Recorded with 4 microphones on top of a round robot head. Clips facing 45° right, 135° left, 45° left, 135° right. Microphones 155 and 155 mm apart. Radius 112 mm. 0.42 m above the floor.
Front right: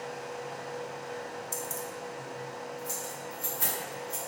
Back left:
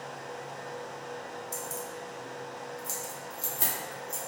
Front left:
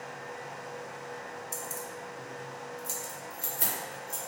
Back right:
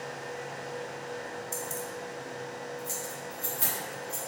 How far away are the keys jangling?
About 0.5 m.